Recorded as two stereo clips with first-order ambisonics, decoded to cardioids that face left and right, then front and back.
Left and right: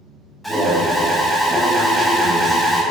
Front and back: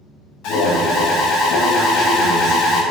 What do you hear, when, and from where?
0.4 s an alarm: 5° left, 0.9 m